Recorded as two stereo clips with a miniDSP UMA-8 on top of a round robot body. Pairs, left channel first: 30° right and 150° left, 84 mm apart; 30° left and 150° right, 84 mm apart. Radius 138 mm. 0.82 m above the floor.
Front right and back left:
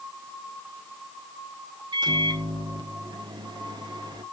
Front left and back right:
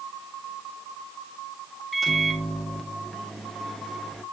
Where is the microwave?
120° left, 1.7 m.